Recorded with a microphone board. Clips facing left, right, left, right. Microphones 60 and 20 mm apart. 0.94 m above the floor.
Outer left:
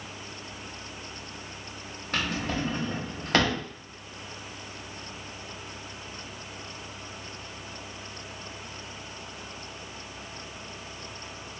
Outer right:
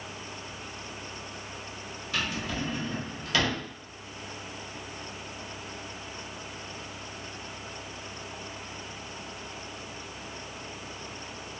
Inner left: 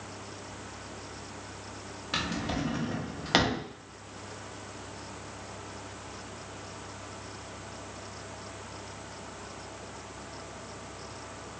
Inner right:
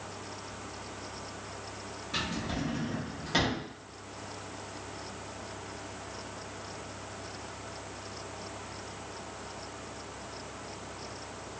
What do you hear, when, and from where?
2.1 s a drawer: 50° left (ahead or behind), 0.6 m